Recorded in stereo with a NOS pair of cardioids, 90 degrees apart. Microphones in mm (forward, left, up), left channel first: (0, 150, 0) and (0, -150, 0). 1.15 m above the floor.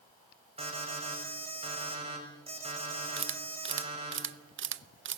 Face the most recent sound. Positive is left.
turn(degrees=-40)